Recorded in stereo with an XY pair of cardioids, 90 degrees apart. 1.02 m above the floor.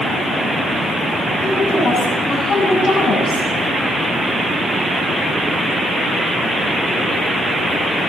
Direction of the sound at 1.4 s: 50° left.